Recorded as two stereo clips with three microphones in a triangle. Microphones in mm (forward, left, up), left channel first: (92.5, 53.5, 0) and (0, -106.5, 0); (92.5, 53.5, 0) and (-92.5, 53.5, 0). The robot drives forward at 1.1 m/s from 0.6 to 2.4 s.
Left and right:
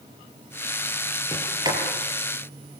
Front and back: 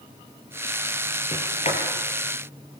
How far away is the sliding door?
About 6.5 m.